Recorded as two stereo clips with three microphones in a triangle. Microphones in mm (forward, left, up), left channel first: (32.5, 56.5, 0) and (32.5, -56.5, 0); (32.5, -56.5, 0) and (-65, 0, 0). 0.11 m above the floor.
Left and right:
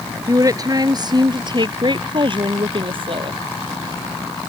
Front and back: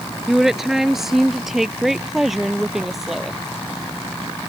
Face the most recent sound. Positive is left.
turn(degrees=-120)